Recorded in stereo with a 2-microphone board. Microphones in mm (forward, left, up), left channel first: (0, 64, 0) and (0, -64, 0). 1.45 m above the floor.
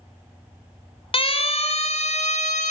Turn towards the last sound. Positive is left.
turn(degrees=80)